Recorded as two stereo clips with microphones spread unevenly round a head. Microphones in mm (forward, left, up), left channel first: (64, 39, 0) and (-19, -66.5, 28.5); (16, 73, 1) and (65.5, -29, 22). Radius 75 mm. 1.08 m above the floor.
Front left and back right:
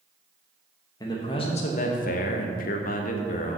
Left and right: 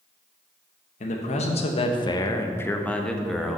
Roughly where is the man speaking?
Behind left.